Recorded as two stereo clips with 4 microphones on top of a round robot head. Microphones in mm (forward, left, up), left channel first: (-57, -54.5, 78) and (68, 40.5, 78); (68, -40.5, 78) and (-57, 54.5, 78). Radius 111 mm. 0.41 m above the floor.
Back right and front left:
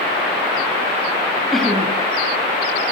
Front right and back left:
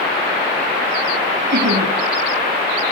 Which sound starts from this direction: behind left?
Laughter, at 1.5 s.